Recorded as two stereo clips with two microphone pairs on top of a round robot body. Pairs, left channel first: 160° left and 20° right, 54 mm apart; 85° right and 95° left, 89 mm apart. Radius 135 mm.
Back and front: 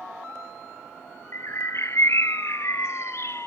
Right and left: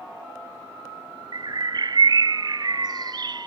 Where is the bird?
125° left.